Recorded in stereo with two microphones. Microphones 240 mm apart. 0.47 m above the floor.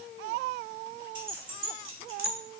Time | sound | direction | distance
1.1 | keys jangling | 60° right (ahead or behind) | 1.5 m